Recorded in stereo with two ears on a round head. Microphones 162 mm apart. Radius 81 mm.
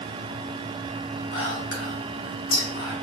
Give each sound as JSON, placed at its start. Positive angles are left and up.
{"t": 1.3, "sound": "whispering", "side_deg": 75, "distance_m": 2.0}